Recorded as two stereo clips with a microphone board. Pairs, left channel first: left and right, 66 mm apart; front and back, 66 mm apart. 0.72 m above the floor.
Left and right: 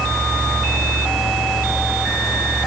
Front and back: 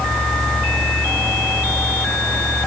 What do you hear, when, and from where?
Only background noise.